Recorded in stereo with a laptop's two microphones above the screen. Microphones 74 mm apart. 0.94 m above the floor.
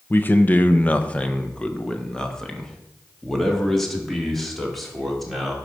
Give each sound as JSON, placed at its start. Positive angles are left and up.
{"t": 0.1, "sound": "a man speaking", "side_deg": 25, "distance_m": 0.8}